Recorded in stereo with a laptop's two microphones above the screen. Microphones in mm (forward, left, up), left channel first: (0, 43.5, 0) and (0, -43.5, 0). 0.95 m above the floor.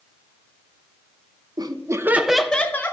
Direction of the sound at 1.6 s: 50° right (ahead or behind).